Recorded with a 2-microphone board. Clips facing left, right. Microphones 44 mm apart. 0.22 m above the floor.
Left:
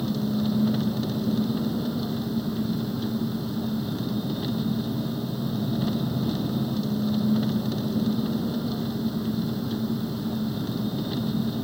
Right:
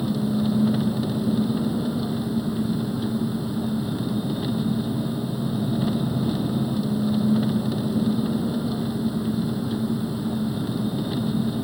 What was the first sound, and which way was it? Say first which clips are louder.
An engine running: right 3 dB; 10° right (ahead or behind).